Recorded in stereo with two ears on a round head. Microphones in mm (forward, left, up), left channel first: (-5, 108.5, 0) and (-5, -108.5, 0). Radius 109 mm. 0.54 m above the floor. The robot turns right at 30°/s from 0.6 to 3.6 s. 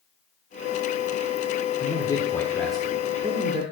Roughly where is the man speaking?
Behind left.